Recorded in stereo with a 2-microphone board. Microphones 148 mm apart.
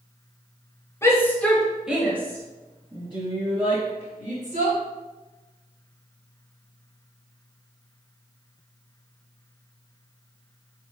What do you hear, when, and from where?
1.0 s a shout: 20° left (ahead or behind), 1.1 m; by 4.8 s 55° right (ahead or behind), 2.0 m